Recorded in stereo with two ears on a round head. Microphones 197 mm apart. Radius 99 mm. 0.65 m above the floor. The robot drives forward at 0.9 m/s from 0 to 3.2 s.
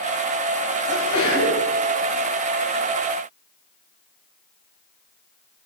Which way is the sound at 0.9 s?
70° left (ahead or behind).